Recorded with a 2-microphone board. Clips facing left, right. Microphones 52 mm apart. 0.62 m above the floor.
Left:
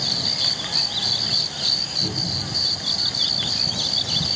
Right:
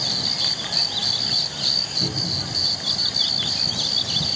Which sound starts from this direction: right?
A cupboard door, at 2.0 s.